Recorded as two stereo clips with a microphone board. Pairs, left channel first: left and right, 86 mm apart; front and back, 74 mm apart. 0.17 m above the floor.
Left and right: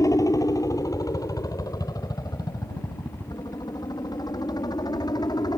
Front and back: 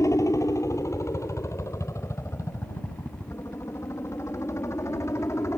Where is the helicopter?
45° left; by 5.6 s 50° left.